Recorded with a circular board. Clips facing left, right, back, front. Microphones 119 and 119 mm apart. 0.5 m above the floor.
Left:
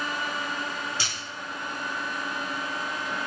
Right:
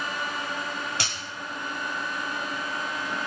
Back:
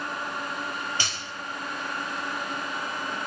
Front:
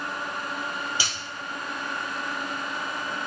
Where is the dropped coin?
80° right, 1.3 m.